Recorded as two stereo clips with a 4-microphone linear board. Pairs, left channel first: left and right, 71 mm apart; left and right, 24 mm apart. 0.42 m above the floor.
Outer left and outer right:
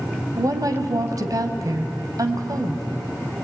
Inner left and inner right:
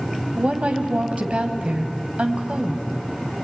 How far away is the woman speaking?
About 3 m.